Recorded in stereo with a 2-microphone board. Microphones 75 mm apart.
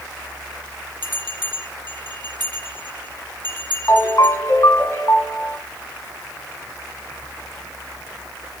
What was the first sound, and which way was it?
A bell, 70° right (ahead or behind).